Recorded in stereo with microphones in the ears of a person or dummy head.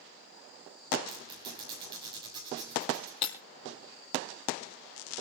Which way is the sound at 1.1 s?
20° right (ahead or behind).